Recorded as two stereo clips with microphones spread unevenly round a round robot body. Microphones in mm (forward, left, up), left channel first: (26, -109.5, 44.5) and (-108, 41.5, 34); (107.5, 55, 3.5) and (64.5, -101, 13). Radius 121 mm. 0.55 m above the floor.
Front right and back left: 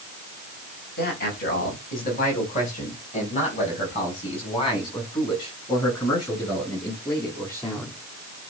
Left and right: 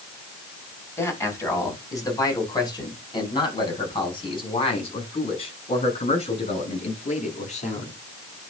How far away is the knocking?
No knocking in this recording.